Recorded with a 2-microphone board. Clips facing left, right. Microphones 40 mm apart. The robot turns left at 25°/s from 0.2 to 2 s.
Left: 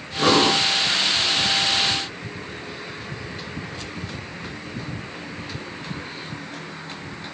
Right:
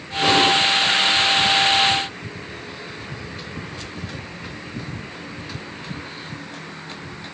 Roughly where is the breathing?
Left.